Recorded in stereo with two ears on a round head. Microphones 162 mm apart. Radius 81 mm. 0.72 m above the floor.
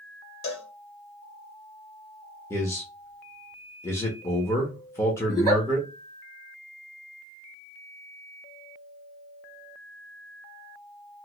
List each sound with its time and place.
0.4 s a cowbell: 70° left (ahead or behind), 1.0 m
2.5 s a man speaking: 15° left (ahead or behind), 0.9 m
5.3 s a giggle: 20° left (ahead or behind), 1.5 m